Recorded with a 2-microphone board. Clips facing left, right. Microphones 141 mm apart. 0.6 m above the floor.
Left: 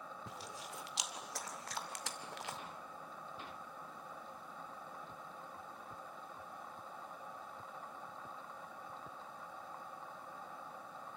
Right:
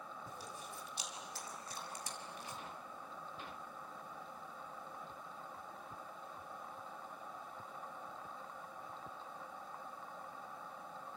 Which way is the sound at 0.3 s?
75° left (ahead or behind).